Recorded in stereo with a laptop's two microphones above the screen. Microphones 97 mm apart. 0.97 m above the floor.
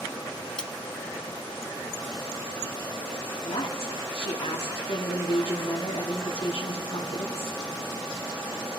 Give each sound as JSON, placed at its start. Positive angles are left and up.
{"t": 0.6, "sound": "cutlery clinking", "side_deg": 10, "distance_m": 1.0}
{"t": 3.4, "sound": "a woman speaking", "side_deg": 70, "distance_m": 1.7}